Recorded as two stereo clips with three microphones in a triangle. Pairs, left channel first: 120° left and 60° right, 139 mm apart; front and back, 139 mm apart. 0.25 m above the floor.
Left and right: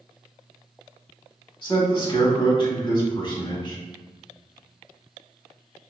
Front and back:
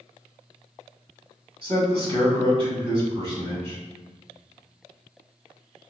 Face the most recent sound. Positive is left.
turn(degrees=155)